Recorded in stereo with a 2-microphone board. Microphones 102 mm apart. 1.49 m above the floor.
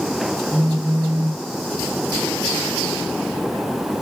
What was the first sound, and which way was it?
A phone buzzing, 55° left (ahead or behind).